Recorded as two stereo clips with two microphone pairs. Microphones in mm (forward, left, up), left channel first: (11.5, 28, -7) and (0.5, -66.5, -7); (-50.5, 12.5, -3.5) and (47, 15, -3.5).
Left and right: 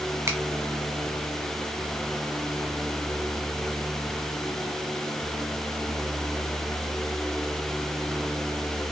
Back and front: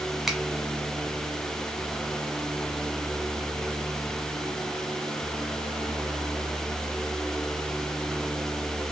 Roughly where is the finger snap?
Right.